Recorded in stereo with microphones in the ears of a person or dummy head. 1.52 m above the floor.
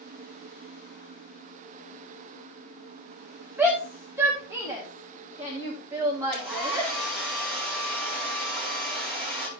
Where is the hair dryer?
Centre (ahead or behind), 4.5 m.